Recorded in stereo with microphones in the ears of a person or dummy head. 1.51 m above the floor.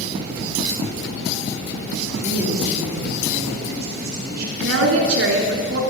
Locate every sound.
2.1 s a man speaking: 15° right (ahead or behind), 5 m
4.6 s a woman speaking: 70° right (ahead or behind), 3 m